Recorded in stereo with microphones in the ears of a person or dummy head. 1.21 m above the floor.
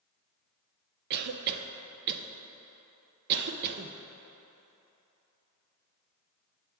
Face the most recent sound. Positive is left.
turn(degrees=-55)  # may be behind; listen again after turning